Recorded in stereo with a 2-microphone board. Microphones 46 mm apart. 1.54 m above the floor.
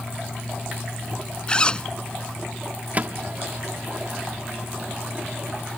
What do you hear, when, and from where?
1.5 s a zipper: 20° left (ahead or behind)
2.9 s a microwave: 35° right (ahead or behind)